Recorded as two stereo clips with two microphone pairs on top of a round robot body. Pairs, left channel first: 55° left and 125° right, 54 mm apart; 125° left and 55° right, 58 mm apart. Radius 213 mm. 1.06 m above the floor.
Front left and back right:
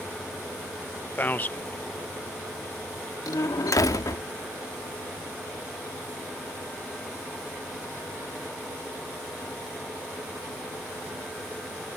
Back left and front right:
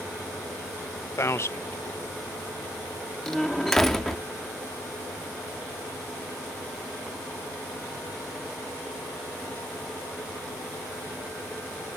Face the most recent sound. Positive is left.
turn(degrees=40)